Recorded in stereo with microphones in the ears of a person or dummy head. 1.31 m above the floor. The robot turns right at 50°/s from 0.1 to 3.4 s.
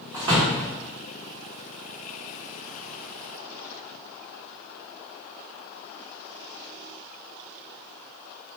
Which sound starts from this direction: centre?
A door slam, at 0.1 s.